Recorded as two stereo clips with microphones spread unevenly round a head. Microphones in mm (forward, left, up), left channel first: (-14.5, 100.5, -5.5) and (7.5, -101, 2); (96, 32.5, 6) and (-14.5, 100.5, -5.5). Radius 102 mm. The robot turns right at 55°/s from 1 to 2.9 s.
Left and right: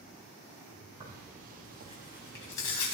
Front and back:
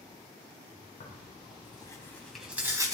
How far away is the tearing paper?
About 5.5 m.